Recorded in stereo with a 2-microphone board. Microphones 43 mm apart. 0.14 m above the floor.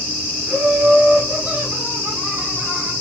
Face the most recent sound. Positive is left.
turn(degrees=-50)  # may be behind; listen again after turning